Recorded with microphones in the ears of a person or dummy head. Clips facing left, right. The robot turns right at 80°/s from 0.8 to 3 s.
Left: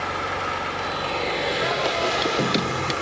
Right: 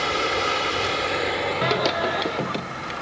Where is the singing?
50° right; by 2.9 s 55° left.